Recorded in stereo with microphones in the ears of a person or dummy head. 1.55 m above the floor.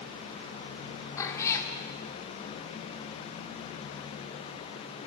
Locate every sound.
1.2 s a cat meowing: 15° left (ahead or behind), 1.9 m